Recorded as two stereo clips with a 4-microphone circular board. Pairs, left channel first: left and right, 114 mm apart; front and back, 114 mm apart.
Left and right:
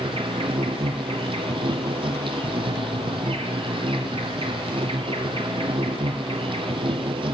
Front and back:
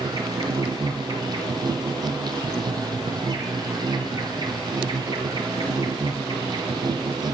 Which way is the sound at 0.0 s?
130° right.